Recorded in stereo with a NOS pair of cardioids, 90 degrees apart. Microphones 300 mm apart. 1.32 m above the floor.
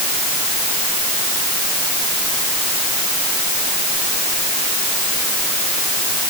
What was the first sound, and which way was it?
Only background noise.